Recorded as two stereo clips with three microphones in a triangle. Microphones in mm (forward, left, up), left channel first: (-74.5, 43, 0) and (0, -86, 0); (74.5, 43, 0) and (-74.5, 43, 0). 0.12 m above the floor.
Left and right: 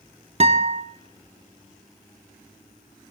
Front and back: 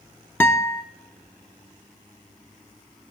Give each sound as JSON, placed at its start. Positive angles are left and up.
{"t": 0.4, "sound": "a guitar", "azimuth_deg": -70, "distance_m": 1.1}